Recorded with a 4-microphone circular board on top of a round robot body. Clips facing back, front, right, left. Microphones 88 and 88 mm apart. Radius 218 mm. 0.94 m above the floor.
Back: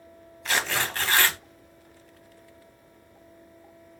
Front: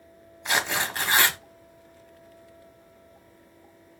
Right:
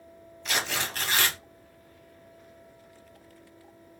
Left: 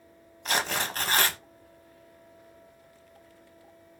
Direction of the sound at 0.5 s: 65° left.